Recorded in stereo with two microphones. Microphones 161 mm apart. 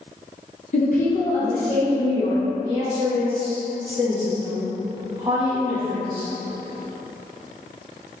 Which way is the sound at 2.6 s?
25° right (ahead or behind).